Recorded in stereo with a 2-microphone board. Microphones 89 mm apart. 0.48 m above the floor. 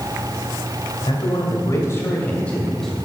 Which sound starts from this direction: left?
A man speaking, at 1.1 s.